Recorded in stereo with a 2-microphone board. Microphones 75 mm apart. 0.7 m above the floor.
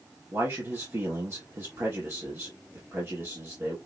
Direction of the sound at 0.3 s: 35° right (ahead or behind).